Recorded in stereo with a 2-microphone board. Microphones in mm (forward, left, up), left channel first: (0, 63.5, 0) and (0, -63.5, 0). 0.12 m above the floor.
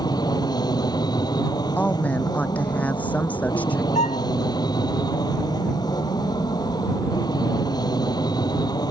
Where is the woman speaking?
10° left (ahead or behind).